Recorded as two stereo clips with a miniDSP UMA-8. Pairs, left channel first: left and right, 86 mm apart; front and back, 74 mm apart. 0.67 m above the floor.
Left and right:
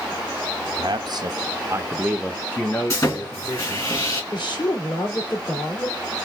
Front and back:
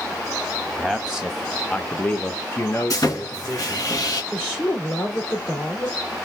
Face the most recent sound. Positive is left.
turn(degrees=65)